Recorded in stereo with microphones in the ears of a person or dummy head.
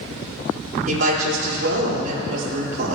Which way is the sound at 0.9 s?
55° right (ahead or behind).